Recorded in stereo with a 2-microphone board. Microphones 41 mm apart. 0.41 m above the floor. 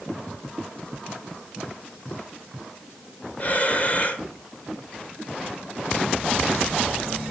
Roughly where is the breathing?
Left.